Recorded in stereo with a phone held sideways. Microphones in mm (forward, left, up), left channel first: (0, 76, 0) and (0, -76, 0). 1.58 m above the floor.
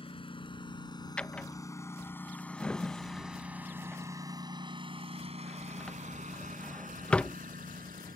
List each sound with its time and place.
0.0 s a lawn mower: 35° left (ahead or behind); by 8.2 s 70° right (ahead or behind)
1.2 s a drawer: 5° left (ahead or behind)